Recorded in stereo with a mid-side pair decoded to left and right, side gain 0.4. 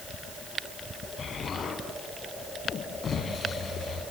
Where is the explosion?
50° left, 6 m.